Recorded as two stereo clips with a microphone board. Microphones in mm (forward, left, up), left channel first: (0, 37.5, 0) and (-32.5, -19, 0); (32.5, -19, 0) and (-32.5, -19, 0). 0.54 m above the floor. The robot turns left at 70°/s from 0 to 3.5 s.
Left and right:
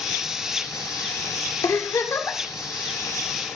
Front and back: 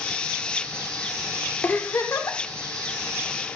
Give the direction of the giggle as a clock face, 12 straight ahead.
10 o'clock.